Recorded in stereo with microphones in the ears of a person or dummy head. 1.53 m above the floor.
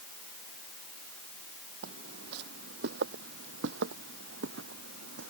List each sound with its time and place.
1.8 s footsteps: 60° right (ahead or behind); by 5.3 s 70° right (ahead or behind)